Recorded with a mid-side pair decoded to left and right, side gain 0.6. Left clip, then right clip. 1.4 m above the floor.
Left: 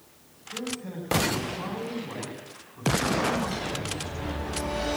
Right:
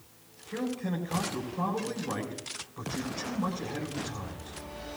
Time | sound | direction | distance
0.5 | a man speaking | 50° right | 7 m